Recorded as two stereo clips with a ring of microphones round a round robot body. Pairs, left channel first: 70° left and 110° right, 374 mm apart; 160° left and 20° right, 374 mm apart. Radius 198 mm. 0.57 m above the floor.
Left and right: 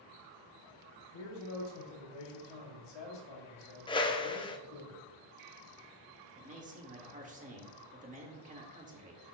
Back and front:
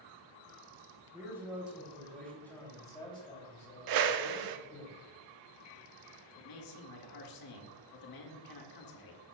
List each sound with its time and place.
1.1 s a man speaking: 60° left, 3.5 m; by 4.9 s 100° left, 3 m
3.9 s a whoosh: 10° right, 0.7 m
6.3 s a man speaking: straight behind, 1.8 m